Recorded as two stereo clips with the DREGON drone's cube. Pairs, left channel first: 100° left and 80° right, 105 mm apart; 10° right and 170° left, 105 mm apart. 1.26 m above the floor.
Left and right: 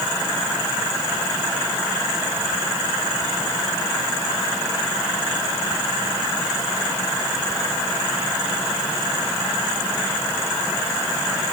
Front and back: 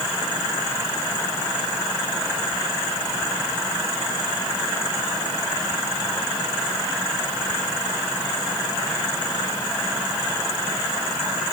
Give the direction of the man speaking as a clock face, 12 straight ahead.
I don't hear a man speaking.